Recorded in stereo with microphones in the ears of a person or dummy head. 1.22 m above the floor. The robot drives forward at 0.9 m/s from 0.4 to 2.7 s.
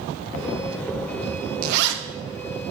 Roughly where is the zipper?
Right.